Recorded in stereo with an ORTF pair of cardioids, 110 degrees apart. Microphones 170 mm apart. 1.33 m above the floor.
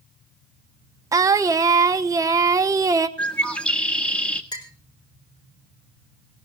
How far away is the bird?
About 1.6 m.